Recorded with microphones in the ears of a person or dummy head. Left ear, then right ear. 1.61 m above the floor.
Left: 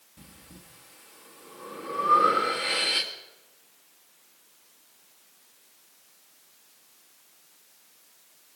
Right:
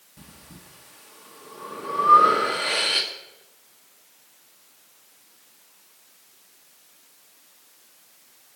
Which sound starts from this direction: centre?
Breathing, at 0.2 s.